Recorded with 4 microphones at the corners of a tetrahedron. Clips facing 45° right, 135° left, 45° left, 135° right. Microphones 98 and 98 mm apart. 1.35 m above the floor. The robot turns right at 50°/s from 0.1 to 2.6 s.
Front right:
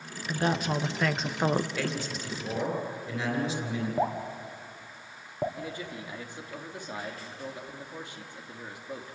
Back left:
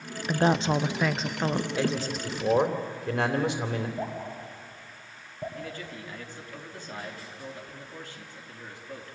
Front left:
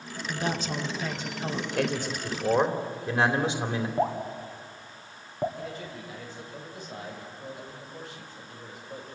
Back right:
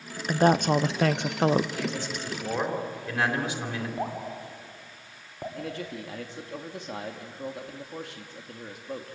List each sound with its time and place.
0.3 s a woman speaking: straight behind, 0.9 m; by 1.7 s 110° right, 0.9 m
1.8 s a man speaking: 70° left, 3 m; by 3.9 s 115° left, 3 m
4.0 s dripping: 30° right, 2.5 m
5.6 s a man speaking: 120° right, 3 m